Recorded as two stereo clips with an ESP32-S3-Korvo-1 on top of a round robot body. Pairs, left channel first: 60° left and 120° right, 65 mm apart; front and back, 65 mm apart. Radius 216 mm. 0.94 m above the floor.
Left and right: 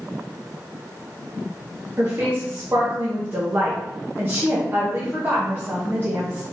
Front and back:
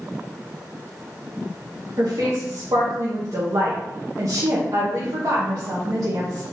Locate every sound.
2.0 s a woman speaking: 175° right, 1.1 m